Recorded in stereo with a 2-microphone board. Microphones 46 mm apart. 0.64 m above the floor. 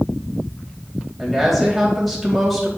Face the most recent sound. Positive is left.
turn(degrees=5)  # may be behind; listen again after turning